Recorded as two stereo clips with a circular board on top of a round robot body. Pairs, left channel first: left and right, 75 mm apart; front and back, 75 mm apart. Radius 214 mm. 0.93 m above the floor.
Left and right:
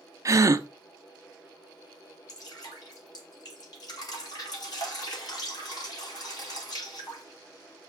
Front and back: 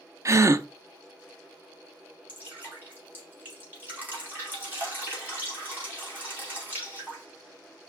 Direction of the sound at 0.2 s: 135° right.